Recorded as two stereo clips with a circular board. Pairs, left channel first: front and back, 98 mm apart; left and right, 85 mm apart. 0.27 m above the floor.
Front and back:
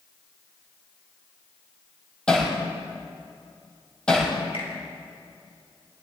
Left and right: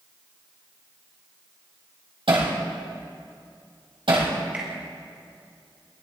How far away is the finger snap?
About 4.5 m.